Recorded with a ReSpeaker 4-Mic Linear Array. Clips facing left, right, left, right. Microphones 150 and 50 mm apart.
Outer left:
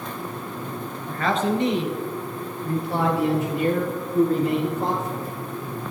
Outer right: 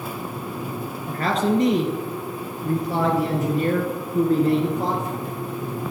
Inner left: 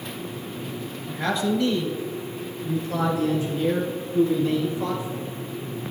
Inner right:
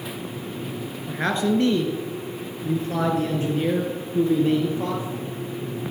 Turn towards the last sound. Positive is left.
turn(degrees=-35)  # may be behind; listen again after turning